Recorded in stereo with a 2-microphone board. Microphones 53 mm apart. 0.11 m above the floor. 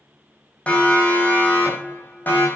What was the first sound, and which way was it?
A siren, 25° left (ahead or behind).